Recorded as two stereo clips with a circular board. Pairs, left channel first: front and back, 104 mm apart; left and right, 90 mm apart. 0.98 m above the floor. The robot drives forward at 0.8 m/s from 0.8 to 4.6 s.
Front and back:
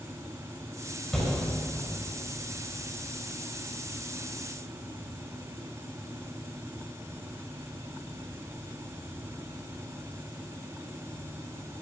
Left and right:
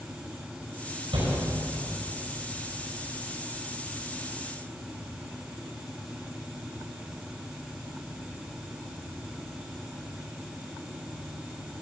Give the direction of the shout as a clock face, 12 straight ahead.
3 o'clock.